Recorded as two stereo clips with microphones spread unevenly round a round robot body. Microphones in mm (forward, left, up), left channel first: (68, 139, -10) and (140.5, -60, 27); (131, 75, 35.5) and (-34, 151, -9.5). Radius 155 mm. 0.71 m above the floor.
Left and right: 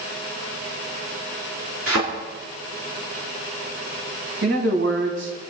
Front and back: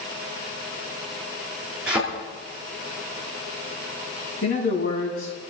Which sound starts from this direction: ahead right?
A man speaking, at 4.4 s.